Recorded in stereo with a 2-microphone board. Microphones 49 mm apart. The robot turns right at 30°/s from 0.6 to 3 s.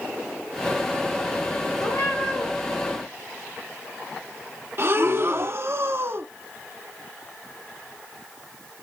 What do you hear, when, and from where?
1.8 s a cat meowing: 85° left, 5.5 m; by 2.5 s 70° left (ahead or behind), 5.5 m
4.8 s breathing: 45° right (ahead or behind), 0.7 m